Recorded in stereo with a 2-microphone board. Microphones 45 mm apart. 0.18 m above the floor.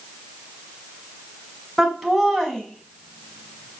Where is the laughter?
5° right (ahead or behind), 2 m; by 3.8 s 30° left (ahead or behind), 2.5 m.